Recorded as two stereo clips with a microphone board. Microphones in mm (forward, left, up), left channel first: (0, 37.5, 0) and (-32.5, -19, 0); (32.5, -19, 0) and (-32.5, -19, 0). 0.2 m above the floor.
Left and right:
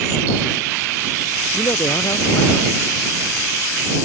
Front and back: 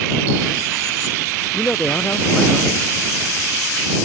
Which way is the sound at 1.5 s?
60° left.